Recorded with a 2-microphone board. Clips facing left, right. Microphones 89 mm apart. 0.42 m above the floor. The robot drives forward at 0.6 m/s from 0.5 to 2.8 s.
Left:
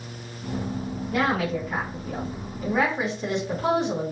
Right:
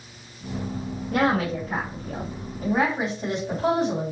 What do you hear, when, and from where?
1.1 s a woman speaking: 50° right (ahead or behind), 2 m; by 4.1 s 35° right (ahead or behind), 3 m